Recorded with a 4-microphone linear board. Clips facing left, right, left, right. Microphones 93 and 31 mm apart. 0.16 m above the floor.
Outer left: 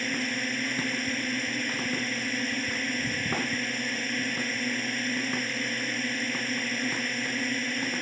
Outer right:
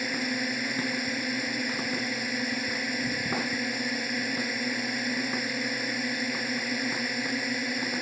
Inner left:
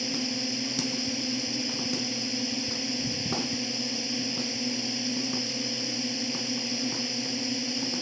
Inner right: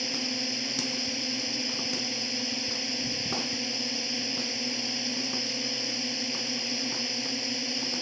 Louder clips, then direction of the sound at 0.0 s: Outer right 1 dB, inner left 1 dB; 10° right (ahead or behind).